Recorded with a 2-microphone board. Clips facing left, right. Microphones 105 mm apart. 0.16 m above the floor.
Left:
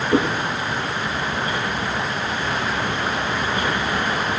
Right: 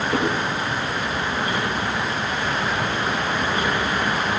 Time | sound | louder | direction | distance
0.1 | a whoosh | left 4 dB | 20° left (ahead or behind) | 8 m